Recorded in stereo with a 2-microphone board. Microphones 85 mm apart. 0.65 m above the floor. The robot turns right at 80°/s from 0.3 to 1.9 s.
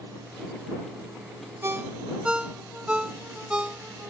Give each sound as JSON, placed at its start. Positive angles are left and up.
{"t": 1.6, "sound": "a ringtone", "side_deg": -35}